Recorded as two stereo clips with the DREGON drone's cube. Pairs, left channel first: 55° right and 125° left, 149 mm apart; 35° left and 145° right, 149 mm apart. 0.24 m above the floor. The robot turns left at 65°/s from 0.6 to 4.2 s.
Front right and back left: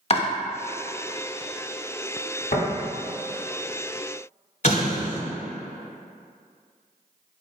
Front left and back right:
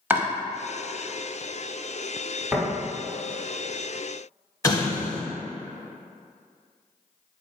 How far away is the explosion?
About 0.7 m.